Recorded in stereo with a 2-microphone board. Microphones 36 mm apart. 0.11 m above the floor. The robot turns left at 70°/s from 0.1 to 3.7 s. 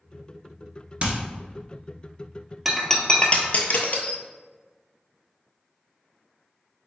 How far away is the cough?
No cough in this recording.